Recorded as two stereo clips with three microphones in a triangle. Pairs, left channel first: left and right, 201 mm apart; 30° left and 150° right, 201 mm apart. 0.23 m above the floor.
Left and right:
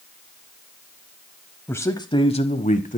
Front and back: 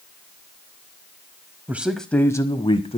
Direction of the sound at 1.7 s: 150° left.